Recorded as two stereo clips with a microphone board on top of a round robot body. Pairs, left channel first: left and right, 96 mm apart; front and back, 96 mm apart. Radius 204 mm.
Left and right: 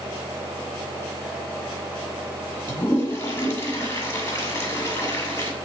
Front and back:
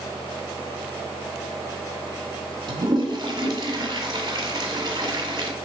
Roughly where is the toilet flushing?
Behind left.